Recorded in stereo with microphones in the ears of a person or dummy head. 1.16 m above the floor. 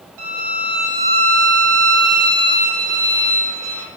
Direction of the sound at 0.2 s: 80° right.